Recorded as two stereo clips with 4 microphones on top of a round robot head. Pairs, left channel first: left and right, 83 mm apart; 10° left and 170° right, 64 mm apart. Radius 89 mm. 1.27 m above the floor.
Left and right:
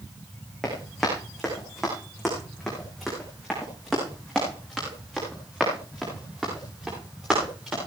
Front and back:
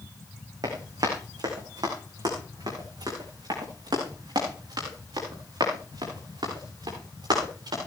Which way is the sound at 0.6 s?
Straight behind.